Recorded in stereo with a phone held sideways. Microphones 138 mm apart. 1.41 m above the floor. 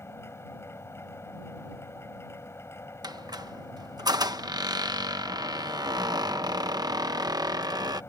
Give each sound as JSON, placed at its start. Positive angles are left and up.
{"t": 0.0, "sound": "a machine running", "side_deg": 20}
{"t": 3.0, "sound": "a squeak", "side_deg": -30}